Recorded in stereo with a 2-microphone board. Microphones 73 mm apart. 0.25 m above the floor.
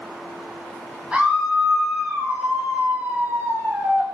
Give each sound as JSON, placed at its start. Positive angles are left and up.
{"t": 1.1, "sound": "a scream", "side_deg": -15, "distance_m": 2.5}